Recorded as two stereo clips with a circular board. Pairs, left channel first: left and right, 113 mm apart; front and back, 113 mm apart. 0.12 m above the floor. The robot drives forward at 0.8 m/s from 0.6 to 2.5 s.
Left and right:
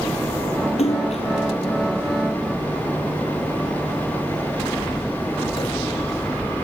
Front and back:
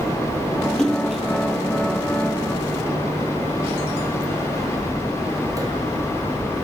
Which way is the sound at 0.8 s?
80° left.